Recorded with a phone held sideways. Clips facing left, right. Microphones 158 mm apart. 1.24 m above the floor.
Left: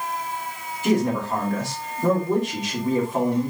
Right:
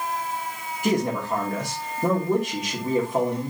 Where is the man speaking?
10° right (ahead or behind), 3 m.